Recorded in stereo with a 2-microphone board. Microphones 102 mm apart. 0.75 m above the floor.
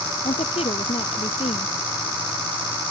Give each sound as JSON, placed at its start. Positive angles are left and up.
{"t": 0.2, "sound": "a woman speaking", "side_deg": 75}